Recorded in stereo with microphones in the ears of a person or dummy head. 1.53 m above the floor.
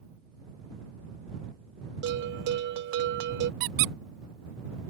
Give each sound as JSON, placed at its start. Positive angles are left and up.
{"t": 2.0, "sound": "a bell", "side_deg": -65}
{"t": 3.6, "sound": "a squeak", "side_deg": -60}